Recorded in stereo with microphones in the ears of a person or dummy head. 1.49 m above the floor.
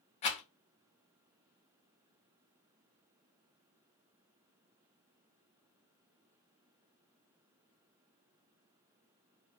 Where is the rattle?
30° left (ahead or behind), 0.6 m.